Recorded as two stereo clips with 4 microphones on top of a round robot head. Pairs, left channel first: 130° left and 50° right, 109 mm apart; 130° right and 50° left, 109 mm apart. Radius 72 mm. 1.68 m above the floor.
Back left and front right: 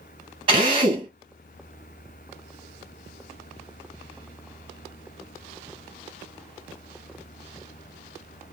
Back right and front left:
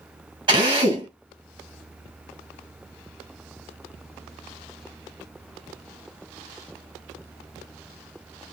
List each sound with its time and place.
0.5 s a drill: 5° right, 1.8 m